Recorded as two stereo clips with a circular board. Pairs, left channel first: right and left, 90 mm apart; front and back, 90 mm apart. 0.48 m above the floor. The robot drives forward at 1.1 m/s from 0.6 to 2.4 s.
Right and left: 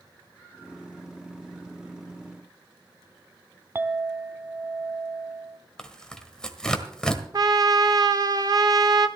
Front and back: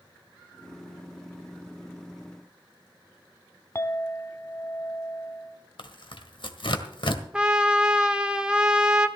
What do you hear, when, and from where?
3.8 s a clink: 40° left, 0.9 m
5.8 s tearing paper: 10° right, 1.6 m
7.3 s a trumpet: 105° left, 1.2 m